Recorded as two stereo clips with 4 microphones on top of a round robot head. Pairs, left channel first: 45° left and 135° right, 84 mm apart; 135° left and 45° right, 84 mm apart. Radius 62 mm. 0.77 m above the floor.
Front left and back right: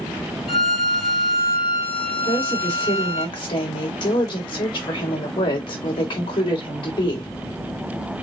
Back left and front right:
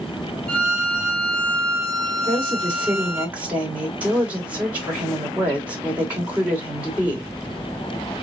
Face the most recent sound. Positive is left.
turn(degrees=25)